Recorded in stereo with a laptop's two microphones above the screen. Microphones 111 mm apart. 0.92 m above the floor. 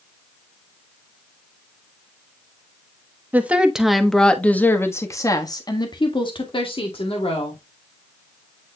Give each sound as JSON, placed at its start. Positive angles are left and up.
{"t": 3.3, "sound": "a woman speaking", "side_deg": -15, "distance_m": 1.3}